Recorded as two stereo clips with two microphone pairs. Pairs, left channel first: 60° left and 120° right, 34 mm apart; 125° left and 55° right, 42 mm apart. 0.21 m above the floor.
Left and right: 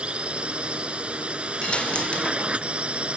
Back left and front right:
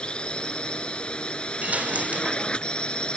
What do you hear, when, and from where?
0.0 s a drone: 170° right
1.6 s a dropped coin: straight ahead